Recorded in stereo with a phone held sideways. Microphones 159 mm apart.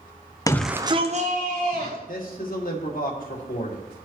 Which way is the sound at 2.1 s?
65° left (ahead or behind).